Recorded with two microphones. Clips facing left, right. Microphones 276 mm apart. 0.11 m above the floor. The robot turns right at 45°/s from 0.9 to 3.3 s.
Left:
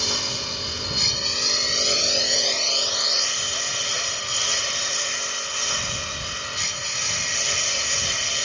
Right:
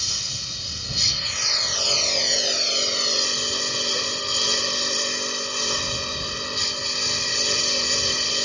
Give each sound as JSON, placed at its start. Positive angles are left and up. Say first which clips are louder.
{"t": 0.0, "sound": "a lawn mower", "louder": "left 11 dB", "azimuth_deg": 115}